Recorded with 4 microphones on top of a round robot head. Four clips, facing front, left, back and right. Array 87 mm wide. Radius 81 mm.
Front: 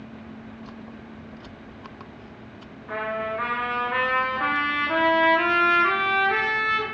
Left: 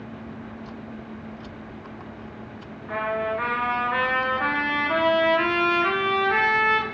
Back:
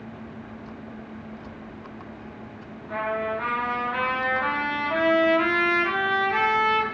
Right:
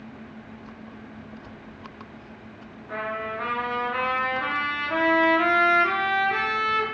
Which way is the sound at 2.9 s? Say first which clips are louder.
Left 5 dB, back 1 dB; 40° left.